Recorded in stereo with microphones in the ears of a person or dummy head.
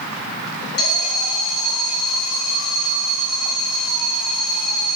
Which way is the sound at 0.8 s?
70° left (ahead or behind).